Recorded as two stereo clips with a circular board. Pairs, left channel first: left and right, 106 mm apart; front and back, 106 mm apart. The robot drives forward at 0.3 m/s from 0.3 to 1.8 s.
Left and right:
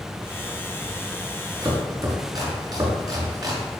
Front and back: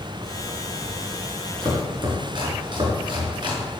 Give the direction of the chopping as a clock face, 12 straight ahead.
5 o'clock.